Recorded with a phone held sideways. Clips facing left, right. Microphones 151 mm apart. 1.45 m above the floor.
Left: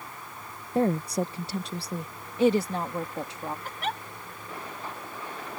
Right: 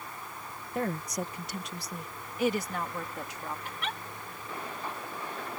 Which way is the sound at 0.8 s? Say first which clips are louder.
Left 8 dB; 30° left (ahead or behind).